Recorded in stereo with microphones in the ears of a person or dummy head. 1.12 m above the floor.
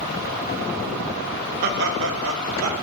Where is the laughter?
45° right (ahead or behind), 1.4 m; by 2.7 s 85° right, 2.5 m.